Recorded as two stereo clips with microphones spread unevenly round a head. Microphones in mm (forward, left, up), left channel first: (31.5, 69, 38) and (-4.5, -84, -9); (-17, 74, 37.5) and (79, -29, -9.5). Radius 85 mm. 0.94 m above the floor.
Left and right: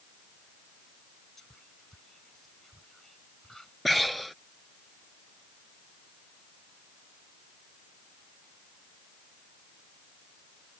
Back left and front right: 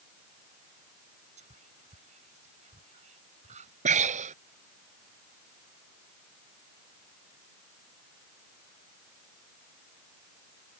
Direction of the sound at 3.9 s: 10° right.